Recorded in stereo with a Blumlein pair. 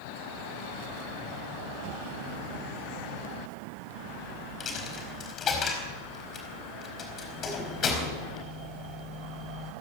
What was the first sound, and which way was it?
A dropped coin, 25° left.